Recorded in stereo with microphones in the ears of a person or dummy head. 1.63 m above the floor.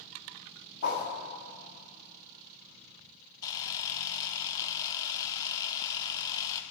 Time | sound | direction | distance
0.8 | a whoosh | 35° left (ahead or behind) | 1.7 m
3.4 | a camera shutter | 25° left (ahead or behind) | 0.7 m